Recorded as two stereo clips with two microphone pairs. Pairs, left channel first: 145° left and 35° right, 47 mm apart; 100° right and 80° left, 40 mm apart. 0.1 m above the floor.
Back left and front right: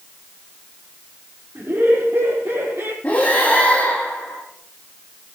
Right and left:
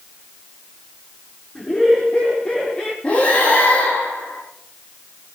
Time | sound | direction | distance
1.6 | laughter | 45° right | 4.5 m
3.0 | breathing | 160° right | 7.5 m